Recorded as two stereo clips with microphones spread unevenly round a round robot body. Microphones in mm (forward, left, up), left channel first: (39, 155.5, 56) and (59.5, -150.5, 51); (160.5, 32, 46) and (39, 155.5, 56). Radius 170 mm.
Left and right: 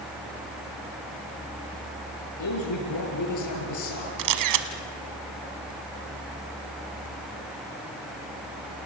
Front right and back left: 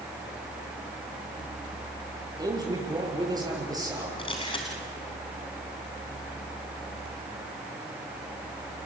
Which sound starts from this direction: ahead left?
A man speaking, at 2.4 s.